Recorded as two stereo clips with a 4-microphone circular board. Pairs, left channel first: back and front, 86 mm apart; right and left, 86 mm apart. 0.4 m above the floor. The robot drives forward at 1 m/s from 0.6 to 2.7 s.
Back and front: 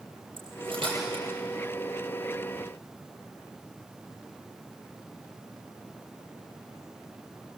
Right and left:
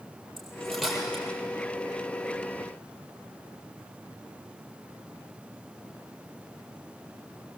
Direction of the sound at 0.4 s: Straight ahead.